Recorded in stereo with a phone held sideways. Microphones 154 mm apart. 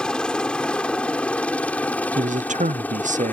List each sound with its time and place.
0.0 s a helicopter: 5° left (ahead or behind); by 3.3 s 10° left (ahead or behind)
2.1 s a man speaking: 55° right (ahead or behind)